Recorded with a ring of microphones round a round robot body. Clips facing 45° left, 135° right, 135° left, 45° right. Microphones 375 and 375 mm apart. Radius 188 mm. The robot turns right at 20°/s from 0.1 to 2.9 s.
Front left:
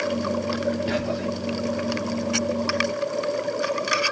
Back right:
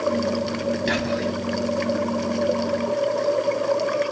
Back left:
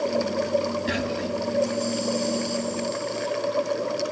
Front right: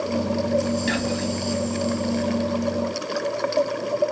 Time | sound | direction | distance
0.9 | whispering | 105° right | 2.5 m